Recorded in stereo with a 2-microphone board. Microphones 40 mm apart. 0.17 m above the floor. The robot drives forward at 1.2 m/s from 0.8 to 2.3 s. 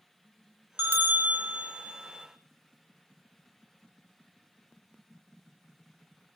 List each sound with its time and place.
0.8 s a bell: 55° right (ahead or behind), 0.9 m; by 2.3 s 20° right (ahead or behind), 2.0 m